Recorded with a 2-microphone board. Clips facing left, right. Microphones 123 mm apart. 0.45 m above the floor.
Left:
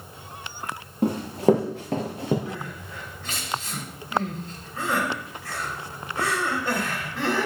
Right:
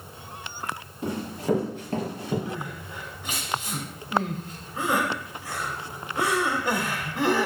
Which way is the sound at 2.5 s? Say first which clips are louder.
Right 1 dB; 15° right (ahead or behind).